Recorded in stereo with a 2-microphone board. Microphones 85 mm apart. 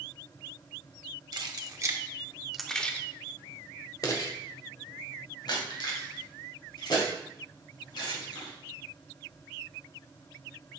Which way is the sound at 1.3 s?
50° right (ahead or behind).